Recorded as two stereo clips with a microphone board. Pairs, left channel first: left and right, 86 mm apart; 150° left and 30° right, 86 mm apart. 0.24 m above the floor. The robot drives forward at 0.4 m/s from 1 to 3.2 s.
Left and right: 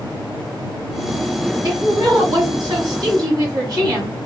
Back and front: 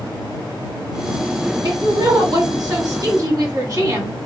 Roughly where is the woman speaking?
Ahead right.